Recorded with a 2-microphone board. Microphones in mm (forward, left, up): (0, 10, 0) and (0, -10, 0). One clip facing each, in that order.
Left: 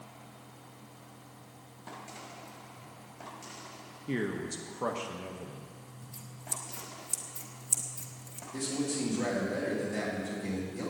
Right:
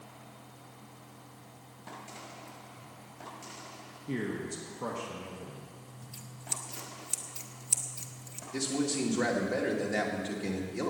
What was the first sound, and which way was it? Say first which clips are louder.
A man speaking: left 1 dB; 20° left (ahead or behind).